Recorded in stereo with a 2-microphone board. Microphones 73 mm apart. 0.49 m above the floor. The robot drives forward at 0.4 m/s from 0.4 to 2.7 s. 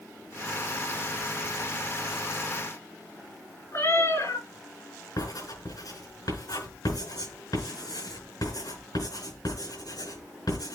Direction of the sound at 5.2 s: 65° left (ahead or behind).